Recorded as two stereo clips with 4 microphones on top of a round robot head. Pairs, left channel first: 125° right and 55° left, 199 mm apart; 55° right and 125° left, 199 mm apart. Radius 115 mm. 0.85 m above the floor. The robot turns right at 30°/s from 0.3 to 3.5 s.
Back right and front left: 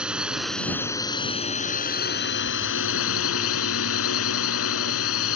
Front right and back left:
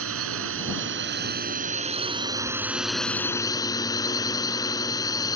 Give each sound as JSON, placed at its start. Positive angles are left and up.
{"t": 0.0, "sound": "a drone", "azimuth_deg": 140}